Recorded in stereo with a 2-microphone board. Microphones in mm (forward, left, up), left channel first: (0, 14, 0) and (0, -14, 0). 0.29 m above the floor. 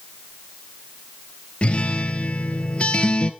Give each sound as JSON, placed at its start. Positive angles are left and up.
{"t": 1.6, "sound": "a guitar", "side_deg": 45, "distance_m": 1.2}